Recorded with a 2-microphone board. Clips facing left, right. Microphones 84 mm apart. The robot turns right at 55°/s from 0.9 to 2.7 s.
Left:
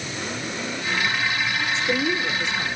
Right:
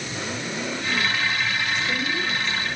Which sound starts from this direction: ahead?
A woman speaking, at 1.6 s.